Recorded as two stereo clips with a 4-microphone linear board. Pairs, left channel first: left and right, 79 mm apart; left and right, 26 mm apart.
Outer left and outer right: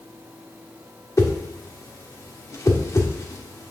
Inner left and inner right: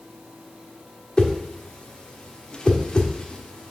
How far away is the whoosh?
About 1.3 m.